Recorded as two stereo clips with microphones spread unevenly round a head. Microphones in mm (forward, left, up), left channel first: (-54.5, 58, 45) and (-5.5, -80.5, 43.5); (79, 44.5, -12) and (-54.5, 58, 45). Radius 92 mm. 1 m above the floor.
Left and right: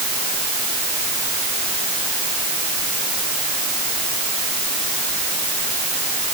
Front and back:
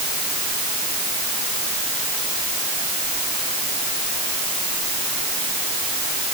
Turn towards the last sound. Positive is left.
No sound to turn to.